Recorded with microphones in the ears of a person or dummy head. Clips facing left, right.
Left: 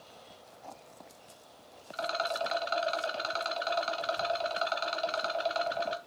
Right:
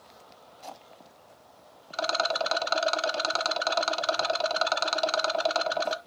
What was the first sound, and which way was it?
A rattle, 65° right (ahead or behind).